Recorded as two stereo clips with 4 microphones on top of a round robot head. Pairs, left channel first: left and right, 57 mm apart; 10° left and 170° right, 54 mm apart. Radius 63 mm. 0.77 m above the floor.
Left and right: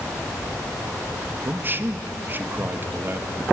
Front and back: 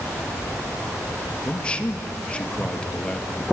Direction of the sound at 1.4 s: 55° right.